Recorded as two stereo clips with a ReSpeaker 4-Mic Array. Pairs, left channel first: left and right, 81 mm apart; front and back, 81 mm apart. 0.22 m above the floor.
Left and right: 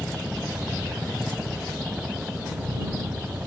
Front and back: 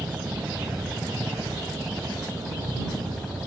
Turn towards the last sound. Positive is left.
turn(degrees=-60)